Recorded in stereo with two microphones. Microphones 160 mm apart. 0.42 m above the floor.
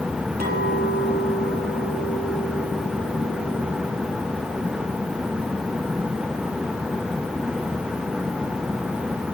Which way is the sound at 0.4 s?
65° right (ahead or behind).